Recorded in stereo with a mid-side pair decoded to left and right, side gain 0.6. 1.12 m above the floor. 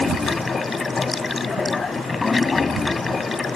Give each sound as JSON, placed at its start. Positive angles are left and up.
{"t": 0.0, "sound": "running water", "azimuth_deg": 20}